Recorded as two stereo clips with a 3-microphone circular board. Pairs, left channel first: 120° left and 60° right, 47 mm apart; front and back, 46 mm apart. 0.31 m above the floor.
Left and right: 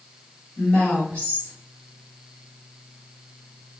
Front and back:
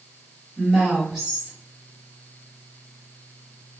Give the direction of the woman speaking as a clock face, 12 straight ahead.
8 o'clock.